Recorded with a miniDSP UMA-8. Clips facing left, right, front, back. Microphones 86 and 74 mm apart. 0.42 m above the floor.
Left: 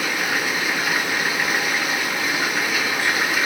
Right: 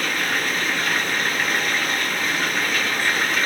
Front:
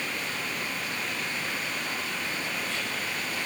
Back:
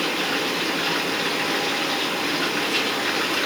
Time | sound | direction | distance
0.0 | running water | 175° left | ?